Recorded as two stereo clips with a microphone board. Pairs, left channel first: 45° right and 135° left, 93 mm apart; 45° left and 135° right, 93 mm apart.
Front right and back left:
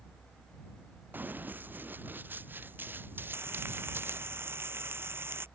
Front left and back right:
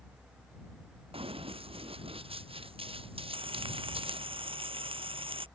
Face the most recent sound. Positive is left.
turn(degrees=-160)